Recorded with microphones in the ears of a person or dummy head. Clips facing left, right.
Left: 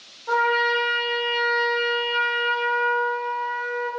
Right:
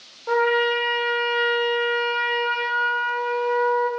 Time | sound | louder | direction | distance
0.3 | a trumpet | right 3 dB | 55° right (ahead or behind) | 1.0 m